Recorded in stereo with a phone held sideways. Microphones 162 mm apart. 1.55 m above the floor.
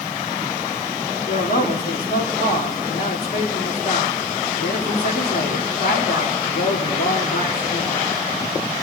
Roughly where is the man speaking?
Left.